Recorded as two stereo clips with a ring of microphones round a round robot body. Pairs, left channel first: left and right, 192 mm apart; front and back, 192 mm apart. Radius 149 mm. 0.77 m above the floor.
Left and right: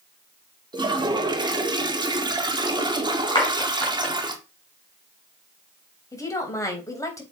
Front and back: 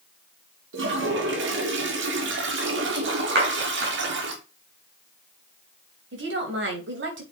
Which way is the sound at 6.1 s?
165° left.